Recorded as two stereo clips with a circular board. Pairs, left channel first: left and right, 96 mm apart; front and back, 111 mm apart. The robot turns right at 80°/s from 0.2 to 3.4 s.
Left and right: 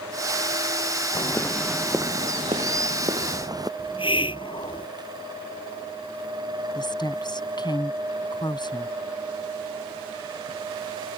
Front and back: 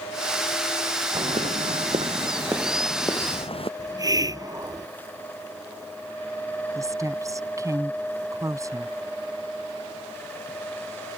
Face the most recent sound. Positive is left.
turn(degrees=125)